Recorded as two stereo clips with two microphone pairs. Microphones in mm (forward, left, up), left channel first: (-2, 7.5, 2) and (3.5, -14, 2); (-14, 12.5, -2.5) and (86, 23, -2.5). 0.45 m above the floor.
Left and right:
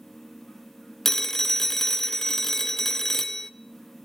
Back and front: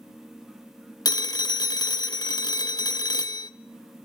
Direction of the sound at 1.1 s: 165° left.